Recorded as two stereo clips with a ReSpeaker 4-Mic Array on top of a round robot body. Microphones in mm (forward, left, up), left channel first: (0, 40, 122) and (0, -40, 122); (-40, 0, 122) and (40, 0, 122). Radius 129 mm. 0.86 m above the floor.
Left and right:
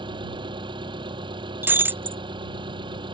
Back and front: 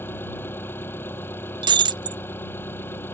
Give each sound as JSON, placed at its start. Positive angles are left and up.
{"t": 0.0, "sound": "an engine running", "azimuth_deg": -115}
{"t": 1.6, "sound": "breaking glass", "azimuth_deg": -25}